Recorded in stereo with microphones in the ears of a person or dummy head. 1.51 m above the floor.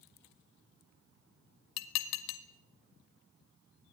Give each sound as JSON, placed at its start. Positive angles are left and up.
{"t": 1.8, "sound": "dishes clattering", "side_deg": 65, "distance_m": 1.5}